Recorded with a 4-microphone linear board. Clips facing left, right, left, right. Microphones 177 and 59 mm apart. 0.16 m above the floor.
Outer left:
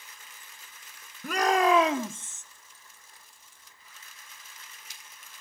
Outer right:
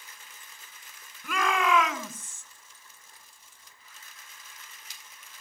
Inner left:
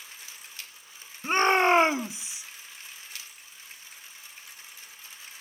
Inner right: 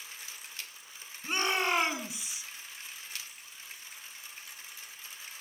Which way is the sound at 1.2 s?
45° left (ahead or behind).